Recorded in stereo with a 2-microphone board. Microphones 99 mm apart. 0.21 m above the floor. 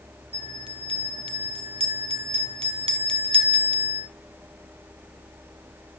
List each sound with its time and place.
0.3 s a bell: 65° right (ahead or behind), 2.5 m